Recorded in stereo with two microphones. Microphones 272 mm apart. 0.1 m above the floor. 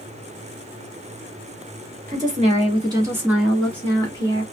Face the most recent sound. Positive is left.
turn(degrees=20)  # may be behind; listen again after turning